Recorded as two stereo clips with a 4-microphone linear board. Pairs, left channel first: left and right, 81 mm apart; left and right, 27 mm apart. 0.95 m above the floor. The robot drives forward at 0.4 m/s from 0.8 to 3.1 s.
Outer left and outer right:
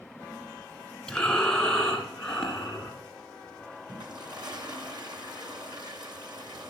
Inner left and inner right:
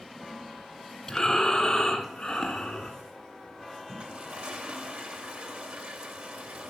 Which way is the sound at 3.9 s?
70° right (ahead or behind).